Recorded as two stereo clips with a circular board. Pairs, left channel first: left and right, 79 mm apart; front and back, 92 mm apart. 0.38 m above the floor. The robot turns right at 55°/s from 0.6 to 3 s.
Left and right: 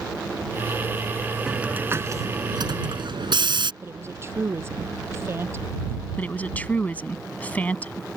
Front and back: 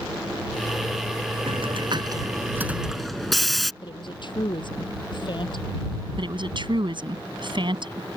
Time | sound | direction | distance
1.5 | a hiss | 175° right | ?
3.8 | a woman speaking | 30° right | ?
6.2 | a woman speaking | 160° left | ?